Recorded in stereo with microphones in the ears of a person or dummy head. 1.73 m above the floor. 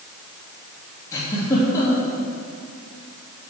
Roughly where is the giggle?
Centre.